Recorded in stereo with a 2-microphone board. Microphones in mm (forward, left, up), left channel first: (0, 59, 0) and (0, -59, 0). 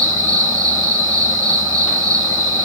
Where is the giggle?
No giggle in this recording.